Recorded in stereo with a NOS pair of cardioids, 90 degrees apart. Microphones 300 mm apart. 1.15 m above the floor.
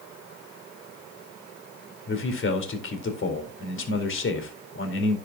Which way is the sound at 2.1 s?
45° left.